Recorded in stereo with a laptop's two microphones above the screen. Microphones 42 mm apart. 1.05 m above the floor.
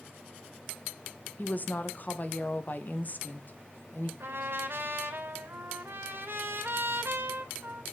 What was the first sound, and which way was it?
A woman speaking, 45° left (ahead or behind).